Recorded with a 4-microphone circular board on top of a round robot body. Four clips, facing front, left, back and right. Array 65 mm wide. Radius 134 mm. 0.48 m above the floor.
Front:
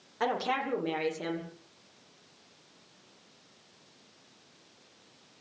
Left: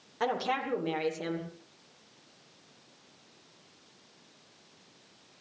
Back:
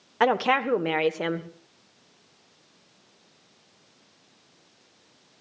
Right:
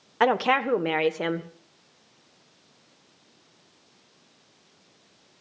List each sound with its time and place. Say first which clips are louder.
0.2 s a woman speaking: right 9 dB, back 8 dB; 130° right, 1.8 m